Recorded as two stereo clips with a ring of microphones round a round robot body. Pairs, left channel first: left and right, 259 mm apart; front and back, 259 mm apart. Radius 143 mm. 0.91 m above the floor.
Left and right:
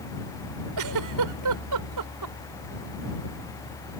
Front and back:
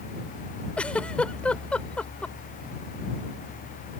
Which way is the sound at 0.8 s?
85° right.